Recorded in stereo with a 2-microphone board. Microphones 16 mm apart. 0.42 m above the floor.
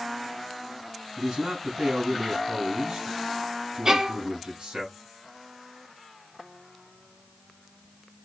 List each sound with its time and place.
1.2 s a man speaking: 60° right (ahead or behind), 4.5 m
3.9 s a violin: 45° right (ahead or behind), 1.3 m